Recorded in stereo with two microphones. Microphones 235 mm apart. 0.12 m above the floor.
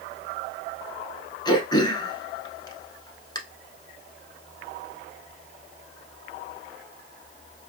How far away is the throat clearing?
About 0.8 m.